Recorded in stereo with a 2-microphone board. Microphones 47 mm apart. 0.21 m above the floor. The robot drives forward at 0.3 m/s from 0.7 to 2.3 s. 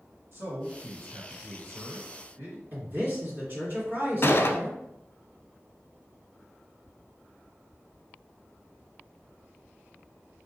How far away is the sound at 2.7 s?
About 2.0 m.